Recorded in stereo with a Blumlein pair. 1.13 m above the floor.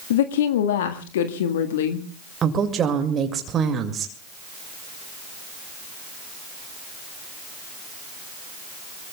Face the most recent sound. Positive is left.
turn(degrees=-25)